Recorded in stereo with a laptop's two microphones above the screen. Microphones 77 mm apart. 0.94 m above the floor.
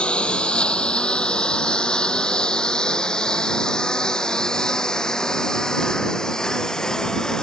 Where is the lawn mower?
15° left (ahead or behind); by 7.4 s 5° left (ahead or behind).